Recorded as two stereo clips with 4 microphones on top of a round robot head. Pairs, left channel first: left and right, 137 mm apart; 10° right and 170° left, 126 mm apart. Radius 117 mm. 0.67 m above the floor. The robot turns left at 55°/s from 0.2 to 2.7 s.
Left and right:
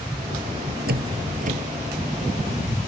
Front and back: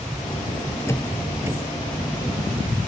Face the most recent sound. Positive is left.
turn(degrees=180)